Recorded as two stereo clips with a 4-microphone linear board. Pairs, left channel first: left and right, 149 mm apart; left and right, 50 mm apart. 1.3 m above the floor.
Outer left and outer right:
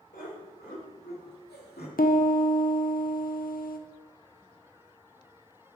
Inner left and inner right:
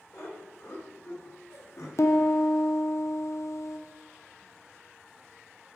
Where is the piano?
65° left (ahead or behind), 0.7 m.